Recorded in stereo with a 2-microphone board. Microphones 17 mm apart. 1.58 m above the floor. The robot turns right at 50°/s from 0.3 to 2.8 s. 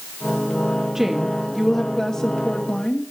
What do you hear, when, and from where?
0.9 s a woman speaking: 30° right, 1.0 m; by 3.1 s 60° left, 1.0 m